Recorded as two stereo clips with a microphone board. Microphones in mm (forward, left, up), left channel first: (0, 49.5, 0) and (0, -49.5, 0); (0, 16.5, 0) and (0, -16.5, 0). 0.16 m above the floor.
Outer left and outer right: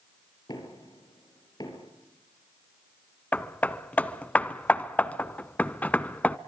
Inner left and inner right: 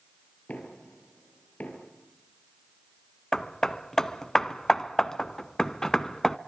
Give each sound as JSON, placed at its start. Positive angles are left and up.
{"t": 0.5, "sound": "knocking", "side_deg": 45, "distance_m": 3.0}
{"t": 3.3, "sound": "hammering", "side_deg": 15, "distance_m": 0.5}